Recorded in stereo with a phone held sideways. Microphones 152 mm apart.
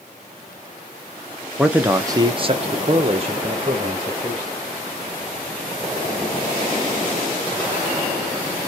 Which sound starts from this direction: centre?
A man speaking, at 1.6 s.